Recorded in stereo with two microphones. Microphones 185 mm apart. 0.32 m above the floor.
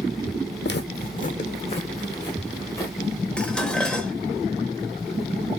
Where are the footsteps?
65° left (ahead or behind), 0.7 m; by 3.0 s 15° left (ahead or behind), 2 m.